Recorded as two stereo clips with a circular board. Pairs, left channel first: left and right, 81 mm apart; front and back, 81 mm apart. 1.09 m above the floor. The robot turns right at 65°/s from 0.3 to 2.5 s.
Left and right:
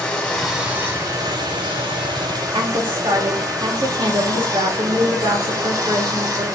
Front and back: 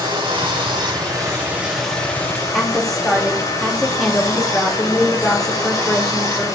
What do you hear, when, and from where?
0.0 s running water: 175° left, 5 m; by 6.6 s 45° right, 5 m
2.5 s a woman speaking: 85° right, 2 m